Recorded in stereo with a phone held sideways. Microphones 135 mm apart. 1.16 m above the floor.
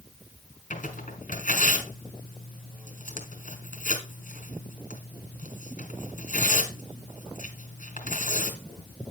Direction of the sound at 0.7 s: 75° left (ahead or behind).